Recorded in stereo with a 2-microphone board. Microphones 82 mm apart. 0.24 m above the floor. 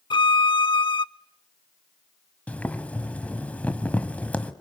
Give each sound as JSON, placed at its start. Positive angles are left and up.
{"t": 0.1, "sound": "a violin", "side_deg": 70, "distance_m": 0.6}
{"t": 2.5, "sound": "boiling", "side_deg": 15, "distance_m": 1.4}